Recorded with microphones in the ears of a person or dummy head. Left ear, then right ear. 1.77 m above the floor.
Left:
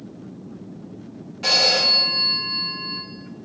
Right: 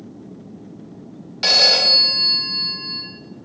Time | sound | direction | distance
1.4 | a phone ringing | 45° right (ahead or behind) | 1.4 m